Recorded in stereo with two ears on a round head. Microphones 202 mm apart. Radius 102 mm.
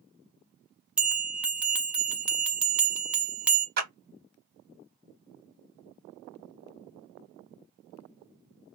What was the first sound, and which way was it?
A bell, 5° right (ahead or behind).